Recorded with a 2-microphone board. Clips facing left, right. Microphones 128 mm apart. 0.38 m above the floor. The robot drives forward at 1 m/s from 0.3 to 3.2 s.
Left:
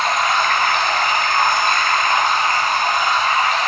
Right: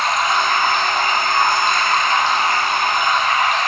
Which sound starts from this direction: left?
Running water, at 0.0 s.